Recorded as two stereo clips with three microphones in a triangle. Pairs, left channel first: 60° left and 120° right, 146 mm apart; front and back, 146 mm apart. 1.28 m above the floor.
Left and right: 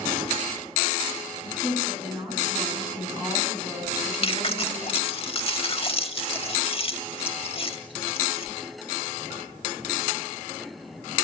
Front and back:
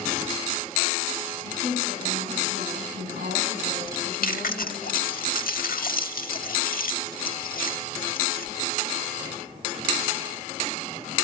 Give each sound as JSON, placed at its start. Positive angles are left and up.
{"t": 1.4, "sound": "a woman speaking", "azimuth_deg": 160, "distance_m": 10.0}
{"t": 3.9, "sound": "chewing", "azimuth_deg": 10, "distance_m": 2.0}